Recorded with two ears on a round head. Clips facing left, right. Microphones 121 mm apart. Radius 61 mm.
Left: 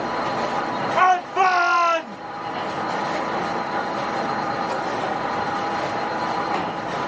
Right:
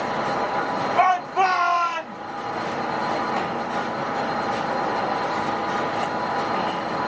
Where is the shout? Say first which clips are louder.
Left 1 dB; 55° left (ahead or behind), 2.5 m; by 2.2 s 60° left (ahead or behind), 1.4 m.